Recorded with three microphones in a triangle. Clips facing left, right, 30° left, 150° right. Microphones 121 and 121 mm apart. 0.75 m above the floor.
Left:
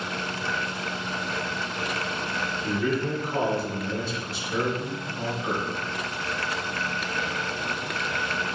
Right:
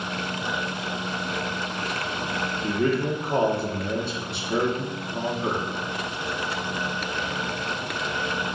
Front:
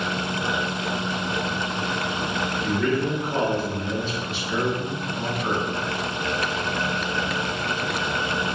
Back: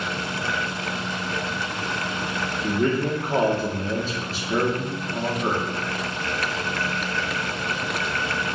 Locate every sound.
2.6 s a man speaking: 105° right, 1.7 m